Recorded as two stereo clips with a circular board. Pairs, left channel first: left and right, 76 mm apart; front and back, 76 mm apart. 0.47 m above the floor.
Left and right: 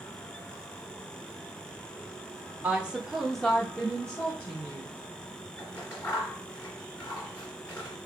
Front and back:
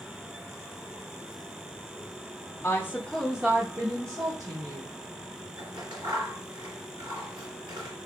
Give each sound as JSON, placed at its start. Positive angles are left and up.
{"t": 2.6, "sound": "a woman speaking", "azimuth_deg": -30, "distance_m": 1.0}
{"t": 5.6, "sound": "scissors", "azimuth_deg": 150, "distance_m": 2.5}